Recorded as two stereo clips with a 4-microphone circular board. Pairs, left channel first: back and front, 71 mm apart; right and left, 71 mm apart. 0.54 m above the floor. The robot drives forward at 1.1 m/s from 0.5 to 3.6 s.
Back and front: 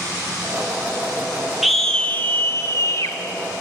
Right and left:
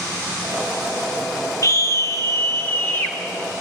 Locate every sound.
1.6 s a scream: 80° right, 1.1 m; by 3.2 s 150° right, 2.0 m